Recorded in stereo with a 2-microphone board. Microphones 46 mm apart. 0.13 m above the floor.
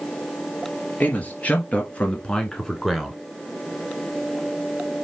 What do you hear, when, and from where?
1.0 s a man speaking: 30° left (ahead or behind), 2.5 m; by 3.2 s 5° right (ahead or behind), 1.5 m